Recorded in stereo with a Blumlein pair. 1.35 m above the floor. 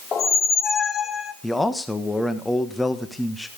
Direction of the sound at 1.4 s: 5° left.